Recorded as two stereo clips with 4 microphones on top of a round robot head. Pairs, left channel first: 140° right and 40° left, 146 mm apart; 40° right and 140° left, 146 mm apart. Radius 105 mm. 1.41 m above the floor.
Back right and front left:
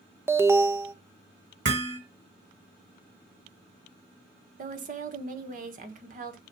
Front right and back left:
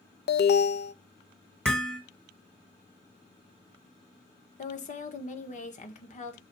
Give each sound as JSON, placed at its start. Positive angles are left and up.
{"t": 0.3, "sound": "an alarm", "azimuth_deg": -35, "distance_m": 0.8}
{"t": 1.6, "sound": "hammering", "azimuth_deg": 45, "distance_m": 1.5}
{"t": 4.6, "sound": "a woman speaking", "azimuth_deg": 5, "distance_m": 1.5}